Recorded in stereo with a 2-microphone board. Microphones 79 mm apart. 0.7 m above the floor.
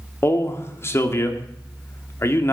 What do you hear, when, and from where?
0.2 s a man speaking: 35° left (ahead or behind), 1.5 m